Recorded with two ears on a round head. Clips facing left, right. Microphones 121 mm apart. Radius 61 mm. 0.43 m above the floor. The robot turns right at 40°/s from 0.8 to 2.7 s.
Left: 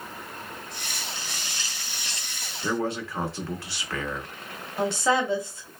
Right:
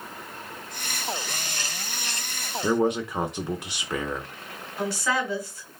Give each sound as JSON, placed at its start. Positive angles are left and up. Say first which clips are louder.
{"t": 2.6, "sound": "a man speaking", "louder": "right 5 dB", "side_deg": -15, "distance_m": 0.7}
{"t": 4.8, "sound": "a woman speaking", "louder": "left 3 dB", "side_deg": 20, "distance_m": 1.2}